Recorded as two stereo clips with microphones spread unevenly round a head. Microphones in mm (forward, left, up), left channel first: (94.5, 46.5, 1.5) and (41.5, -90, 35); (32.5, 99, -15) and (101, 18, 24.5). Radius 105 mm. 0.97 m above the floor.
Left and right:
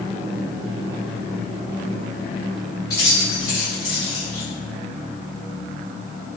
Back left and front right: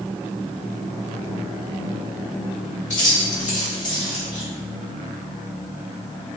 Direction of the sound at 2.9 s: 145° left.